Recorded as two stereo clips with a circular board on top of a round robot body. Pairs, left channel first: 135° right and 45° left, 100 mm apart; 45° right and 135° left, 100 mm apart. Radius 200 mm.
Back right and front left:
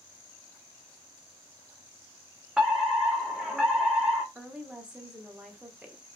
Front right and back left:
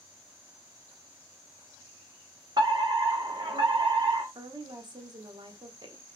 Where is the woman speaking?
120° left, 1.9 m.